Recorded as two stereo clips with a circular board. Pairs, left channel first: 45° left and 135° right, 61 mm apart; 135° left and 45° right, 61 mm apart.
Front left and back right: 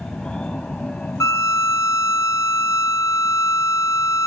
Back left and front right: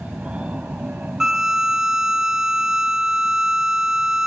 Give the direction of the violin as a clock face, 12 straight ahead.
11 o'clock.